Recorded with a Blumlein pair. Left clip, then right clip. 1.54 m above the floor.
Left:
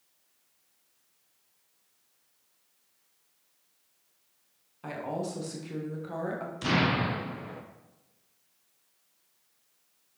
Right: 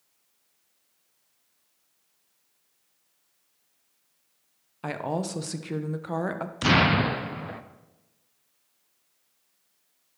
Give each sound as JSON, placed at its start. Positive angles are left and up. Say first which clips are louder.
{"t": 4.8, "sound": "a woman speaking", "louder": "right 4 dB", "azimuth_deg": -25, "distance_m": 1.0}
{"t": 6.6, "sound": "an explosion", "louder": "right 6 dB", "azimuth_deg": -65, "distance_m": 0.7}